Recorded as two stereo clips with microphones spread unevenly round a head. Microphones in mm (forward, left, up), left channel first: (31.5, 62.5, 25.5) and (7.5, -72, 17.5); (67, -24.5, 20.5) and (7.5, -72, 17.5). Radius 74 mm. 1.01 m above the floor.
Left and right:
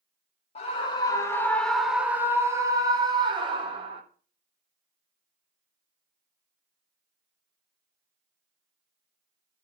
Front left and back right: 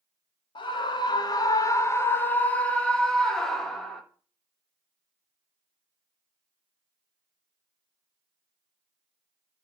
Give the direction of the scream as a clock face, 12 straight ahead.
11 o'clock.